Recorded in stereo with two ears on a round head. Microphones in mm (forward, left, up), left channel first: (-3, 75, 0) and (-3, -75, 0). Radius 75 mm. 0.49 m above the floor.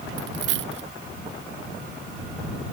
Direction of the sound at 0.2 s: 80° right.